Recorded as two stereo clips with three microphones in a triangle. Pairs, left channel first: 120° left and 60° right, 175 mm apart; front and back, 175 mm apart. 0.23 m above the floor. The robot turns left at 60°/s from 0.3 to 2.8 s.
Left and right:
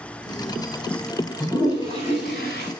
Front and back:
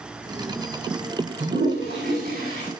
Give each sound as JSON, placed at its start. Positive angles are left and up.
{"t": 1.4, "sound": "a toilet flushing", "azimuth_deg": -150, "distance_m": 8.0}